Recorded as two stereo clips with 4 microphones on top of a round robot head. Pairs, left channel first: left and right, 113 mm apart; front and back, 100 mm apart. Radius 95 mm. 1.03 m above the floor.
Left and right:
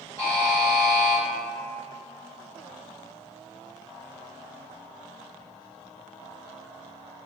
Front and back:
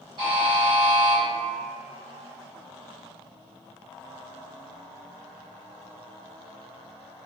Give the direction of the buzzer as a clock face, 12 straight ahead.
7 o'clock.